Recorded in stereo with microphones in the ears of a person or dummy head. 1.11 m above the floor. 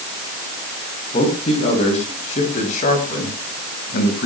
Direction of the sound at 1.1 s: 30° left (ahead or behind).